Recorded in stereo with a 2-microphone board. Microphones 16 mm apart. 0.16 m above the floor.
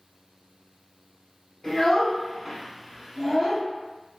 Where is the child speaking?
40° left (ahead or behind), 0.8 m; by 3.6 s 45° right (ahead or behind), 1.8 m.